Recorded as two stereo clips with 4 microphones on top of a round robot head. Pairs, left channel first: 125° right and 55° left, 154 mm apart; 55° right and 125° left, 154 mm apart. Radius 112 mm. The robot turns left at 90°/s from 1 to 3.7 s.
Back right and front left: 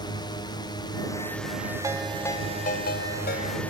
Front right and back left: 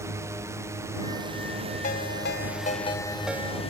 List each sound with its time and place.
0.0 s a drone: 170° right; by 3.7 s 55° right
1.8 s a ringtone: 15° right; by 3.6 s 175° right